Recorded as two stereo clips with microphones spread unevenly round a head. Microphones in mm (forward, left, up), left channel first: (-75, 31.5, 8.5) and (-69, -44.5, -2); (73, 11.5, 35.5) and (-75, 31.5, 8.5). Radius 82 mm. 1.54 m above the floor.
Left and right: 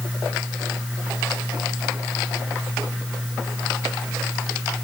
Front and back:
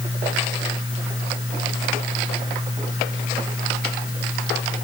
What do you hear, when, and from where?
Only background noise.